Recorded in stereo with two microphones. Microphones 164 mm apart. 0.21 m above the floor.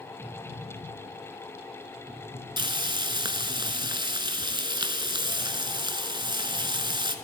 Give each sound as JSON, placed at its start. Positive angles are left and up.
{"t": 2.6, "sound": "frying", "side_deg": -30, "distance_m": 0.6}